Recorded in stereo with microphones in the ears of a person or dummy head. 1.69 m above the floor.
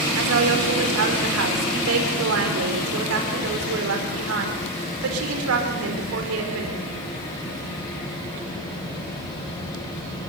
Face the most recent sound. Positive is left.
turn(degrees=-80)